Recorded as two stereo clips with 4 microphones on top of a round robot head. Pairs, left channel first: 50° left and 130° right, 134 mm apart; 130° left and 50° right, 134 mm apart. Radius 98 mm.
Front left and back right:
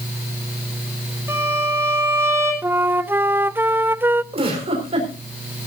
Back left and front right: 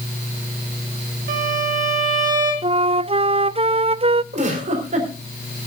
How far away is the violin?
About 5.5 m.